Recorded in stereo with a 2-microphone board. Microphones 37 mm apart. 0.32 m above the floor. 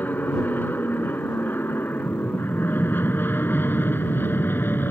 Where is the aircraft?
55° left (ahead or behind); by 4.9 s 70° left (ahead or behind).